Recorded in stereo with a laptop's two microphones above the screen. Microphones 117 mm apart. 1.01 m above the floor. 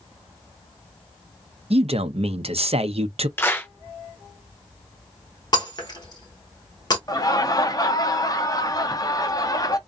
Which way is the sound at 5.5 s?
40° left (ahead or behind).